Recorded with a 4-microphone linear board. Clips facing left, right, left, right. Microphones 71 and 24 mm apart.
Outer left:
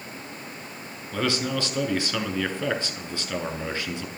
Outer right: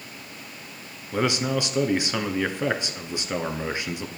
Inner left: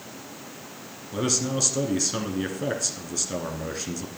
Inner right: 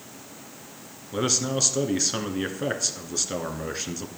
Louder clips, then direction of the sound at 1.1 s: Outer right 2 dB, inner right 1 dB; 20° right (ahead or behind).